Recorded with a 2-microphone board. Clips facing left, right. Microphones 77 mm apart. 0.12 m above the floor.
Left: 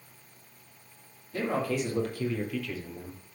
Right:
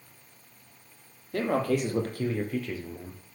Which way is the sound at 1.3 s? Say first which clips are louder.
Right 3 dB; 60° right (ahead or behind).